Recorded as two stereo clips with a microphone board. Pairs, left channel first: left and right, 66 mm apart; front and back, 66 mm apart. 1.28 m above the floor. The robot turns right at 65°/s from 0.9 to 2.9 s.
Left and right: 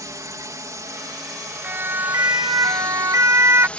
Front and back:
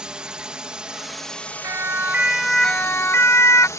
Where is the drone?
105° right; by 3.8 s 25° left.